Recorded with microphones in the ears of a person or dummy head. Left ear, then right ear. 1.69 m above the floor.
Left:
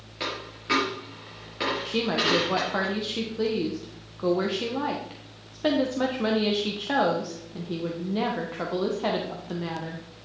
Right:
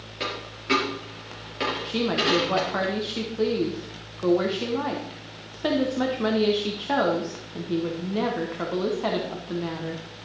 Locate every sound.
0.2 s a dropped coin: centre (ahead or behind), 4 m
1.9 s a woman speaking: centre (ahead or behind), 1.1 m